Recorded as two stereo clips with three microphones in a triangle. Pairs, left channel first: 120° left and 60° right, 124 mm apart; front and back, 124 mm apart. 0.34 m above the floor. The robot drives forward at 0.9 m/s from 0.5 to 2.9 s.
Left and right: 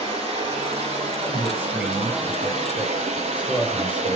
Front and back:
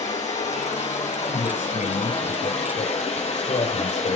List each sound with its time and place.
0.0 s running water: 25° right, 8 m; by 4.2 s 35° right, 6 m
1.3 s a man speaking: 15° left, 6.5 m; by 4.2 s 20° left, 5 m